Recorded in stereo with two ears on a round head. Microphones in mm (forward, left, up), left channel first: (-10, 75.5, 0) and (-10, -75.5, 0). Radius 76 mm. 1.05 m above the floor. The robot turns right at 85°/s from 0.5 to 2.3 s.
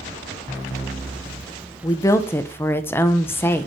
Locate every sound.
1.8 s a woman speaking: 20° left (ahead or behind), 0.6 m; by 3.7 s 15° left (ahead or behind), 0.6 m